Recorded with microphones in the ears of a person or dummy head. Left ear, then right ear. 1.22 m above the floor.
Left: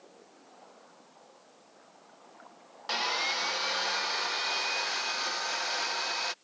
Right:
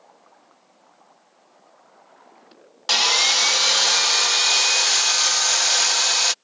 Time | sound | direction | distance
2.9 | sawing | 85° right | ?